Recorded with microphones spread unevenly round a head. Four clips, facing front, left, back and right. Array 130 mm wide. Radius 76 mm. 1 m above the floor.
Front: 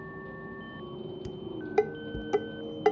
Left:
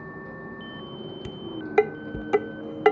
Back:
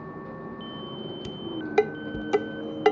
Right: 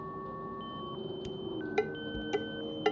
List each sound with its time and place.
0.0 s a vehicle: 155° left
1.2 s dishes clattering: 130° left